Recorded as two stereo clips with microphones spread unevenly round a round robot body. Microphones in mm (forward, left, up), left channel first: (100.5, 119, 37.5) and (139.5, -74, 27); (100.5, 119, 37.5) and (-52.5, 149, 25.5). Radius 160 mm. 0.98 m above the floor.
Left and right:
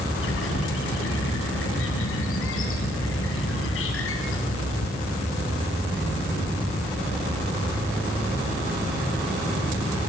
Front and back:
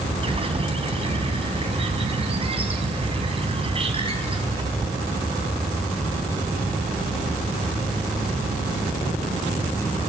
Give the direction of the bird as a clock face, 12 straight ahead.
8 o'clock.